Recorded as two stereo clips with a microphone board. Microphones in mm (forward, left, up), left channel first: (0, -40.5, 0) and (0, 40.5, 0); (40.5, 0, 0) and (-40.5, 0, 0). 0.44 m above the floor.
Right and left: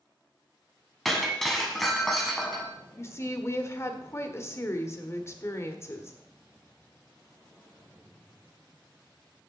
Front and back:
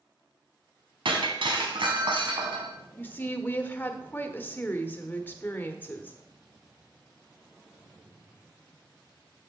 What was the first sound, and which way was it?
Breaking glass, straight behind.